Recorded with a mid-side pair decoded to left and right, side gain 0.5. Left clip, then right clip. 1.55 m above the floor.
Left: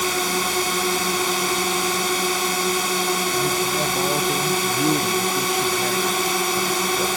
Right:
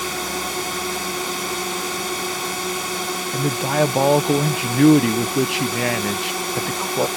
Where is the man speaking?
65° right.